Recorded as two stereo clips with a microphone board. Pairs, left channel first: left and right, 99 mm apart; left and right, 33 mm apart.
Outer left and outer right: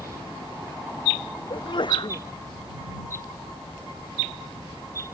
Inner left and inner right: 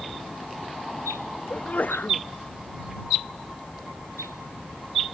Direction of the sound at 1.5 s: 55° left (ahead or behind).